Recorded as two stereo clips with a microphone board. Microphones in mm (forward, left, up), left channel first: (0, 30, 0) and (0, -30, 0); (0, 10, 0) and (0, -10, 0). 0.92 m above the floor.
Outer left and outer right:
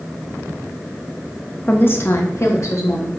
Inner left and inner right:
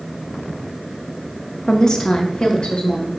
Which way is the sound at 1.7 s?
30° left (ahead or behind).